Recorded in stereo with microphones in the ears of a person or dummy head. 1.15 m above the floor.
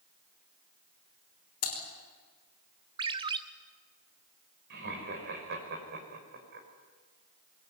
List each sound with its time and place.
1.6 s typing on a keyboard: 45° left (ahead or behind), 5 m
3.0 s a ringtone: 30° right (ahead or behind), 0.9 m
4.7 s laughter: 60° right (ahead or behind), 6 m